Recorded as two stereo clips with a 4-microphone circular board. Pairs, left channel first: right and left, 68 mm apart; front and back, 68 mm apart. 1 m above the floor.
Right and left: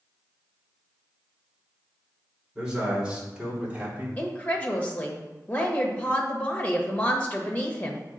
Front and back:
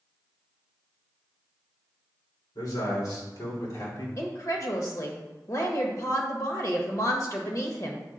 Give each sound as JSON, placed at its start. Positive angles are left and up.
{"t": 2.5, "sound": "a man speaking", "azimuth_deg": 10, "distance_m": 3.0}
{"t": 4.2, "sound": "a woman speaking", "azimuth_deg": -25, "distance_m": 1.4}